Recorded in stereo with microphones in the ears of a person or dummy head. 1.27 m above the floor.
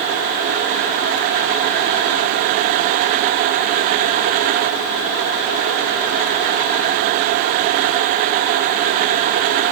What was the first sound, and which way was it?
Only background noise.